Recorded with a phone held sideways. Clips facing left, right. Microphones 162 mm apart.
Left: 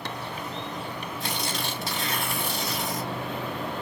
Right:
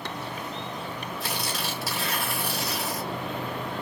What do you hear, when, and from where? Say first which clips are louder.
1.2 s tearing paper: left 1 dB; 5° right (ahead or behind), 2.5 m